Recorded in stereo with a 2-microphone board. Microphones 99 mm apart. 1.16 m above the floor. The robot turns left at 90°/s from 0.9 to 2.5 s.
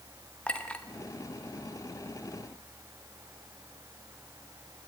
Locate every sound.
0.5 s a clink: 10° left (ahead or behind), 1.0 m